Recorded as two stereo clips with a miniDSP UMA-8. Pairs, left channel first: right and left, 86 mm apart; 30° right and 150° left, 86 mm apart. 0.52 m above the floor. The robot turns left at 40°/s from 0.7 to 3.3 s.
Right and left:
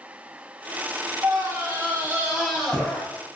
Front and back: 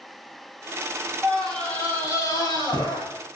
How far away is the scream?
About 4.5 m.